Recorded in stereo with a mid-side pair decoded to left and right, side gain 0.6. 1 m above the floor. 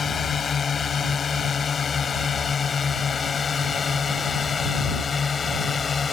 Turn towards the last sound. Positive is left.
turn(degrees=25)